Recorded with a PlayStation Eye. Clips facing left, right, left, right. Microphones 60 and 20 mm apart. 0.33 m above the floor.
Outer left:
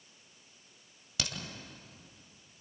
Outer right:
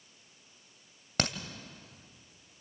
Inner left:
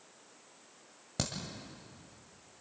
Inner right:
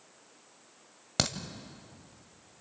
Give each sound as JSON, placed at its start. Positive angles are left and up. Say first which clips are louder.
{"t": 1.2, "sound": "a crack", "louder": "outer right 7 dB, inner right 7 dB", "side_deg": -50, "distance_m": 1.4}